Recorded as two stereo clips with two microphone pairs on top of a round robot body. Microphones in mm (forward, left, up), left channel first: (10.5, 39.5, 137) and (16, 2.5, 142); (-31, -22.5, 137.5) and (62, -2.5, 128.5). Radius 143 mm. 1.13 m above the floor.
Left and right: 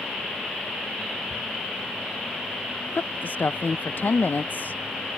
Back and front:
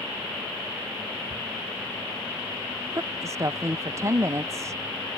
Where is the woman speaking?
70° left.